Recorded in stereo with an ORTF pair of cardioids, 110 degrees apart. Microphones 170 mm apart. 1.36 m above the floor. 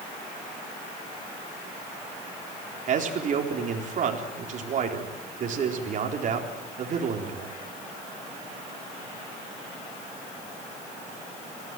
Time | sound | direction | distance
2.9 | a man speaking | 50° right | 4 m